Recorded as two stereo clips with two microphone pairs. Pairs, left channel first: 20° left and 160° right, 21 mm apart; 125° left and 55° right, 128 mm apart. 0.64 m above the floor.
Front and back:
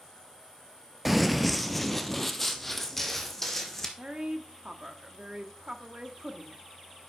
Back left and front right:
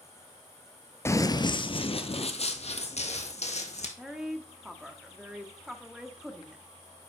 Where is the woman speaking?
140° right, 1.4 m.